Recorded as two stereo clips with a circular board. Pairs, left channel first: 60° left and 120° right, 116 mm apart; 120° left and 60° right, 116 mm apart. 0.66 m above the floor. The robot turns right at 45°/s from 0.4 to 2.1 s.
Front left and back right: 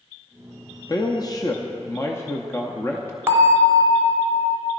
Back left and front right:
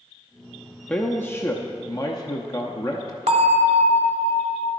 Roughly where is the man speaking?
Ahead left.